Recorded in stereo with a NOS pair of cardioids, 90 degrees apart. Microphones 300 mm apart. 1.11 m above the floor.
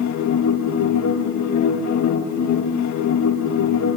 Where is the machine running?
65° left, 1.5 m.